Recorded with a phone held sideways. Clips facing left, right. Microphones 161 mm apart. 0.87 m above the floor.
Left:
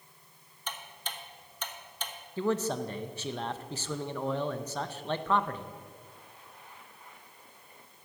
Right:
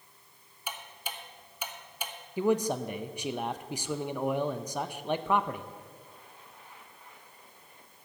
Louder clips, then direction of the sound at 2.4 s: Right 3 dB; 15° right (ahead or behind).